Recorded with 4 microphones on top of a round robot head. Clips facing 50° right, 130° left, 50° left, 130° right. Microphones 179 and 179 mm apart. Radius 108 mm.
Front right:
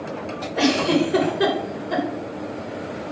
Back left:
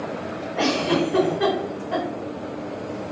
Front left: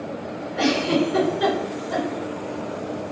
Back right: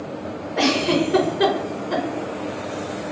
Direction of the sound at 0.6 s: 105° right.